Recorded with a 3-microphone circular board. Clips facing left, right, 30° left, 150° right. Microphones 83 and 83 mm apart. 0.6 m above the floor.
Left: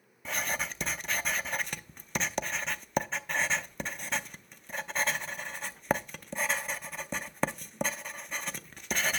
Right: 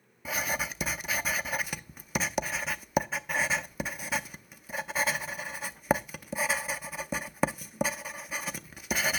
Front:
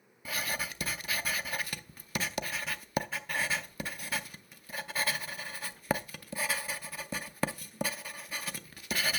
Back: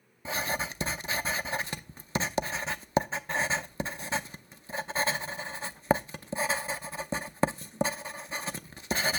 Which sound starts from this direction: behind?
Writing, at 0.2 s.